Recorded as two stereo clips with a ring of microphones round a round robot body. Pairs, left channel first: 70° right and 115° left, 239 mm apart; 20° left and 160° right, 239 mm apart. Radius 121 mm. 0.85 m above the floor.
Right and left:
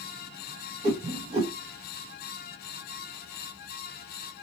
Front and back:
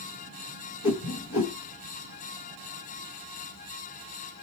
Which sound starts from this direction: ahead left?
A whoosh, at 0.8 s.